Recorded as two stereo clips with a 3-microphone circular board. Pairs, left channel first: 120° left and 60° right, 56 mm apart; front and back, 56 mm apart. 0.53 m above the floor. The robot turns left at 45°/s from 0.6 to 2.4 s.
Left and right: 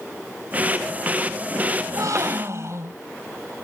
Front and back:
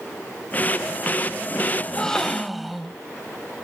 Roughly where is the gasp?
Ahead right.